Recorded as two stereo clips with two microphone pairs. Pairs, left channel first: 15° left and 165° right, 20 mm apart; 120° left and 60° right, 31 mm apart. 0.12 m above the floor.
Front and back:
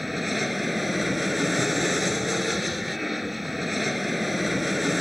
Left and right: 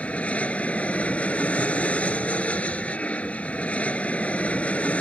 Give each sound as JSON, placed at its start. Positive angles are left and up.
{"t": 0.0, "sound": "an aircraft", "azimuth_deg": 115}